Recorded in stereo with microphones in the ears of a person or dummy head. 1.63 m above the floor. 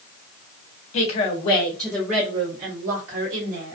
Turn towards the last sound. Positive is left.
turn(degrees=-45)  # may be behind; listen again after turning